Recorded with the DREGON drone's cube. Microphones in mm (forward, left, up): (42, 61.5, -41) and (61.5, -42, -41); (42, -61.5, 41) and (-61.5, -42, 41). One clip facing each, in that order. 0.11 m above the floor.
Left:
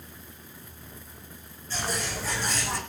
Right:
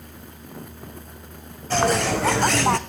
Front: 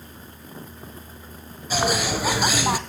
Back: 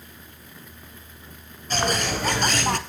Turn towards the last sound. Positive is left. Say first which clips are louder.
# right 12 dB, front 2 dB
turn(degrees=-95)